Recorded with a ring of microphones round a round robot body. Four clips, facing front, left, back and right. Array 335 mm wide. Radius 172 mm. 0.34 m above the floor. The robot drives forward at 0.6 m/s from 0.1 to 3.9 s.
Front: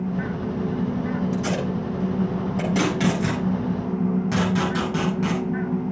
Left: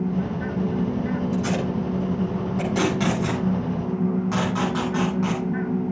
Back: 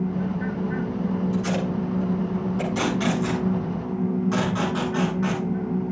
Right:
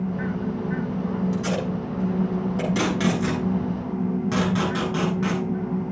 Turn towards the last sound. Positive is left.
turn(degrees=-35)